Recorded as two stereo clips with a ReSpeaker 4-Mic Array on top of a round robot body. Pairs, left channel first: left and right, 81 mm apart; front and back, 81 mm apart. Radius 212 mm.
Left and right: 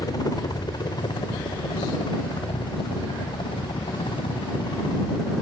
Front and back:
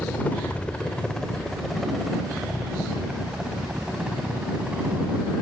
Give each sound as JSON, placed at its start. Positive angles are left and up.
{"t": 0.0, "sound": "a helicopter", "azimuth_deg": 65}